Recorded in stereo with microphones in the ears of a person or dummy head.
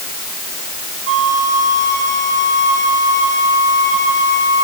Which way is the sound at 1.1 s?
40° right (ahead or behind).